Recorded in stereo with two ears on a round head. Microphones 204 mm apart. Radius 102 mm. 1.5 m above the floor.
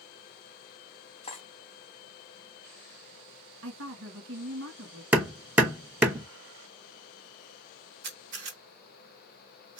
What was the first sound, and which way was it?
Cutlery clinking, 25° left (ahead or behind).